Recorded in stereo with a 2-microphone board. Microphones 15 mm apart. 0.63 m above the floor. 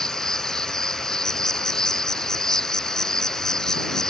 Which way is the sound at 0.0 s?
40° left (ahead or behind).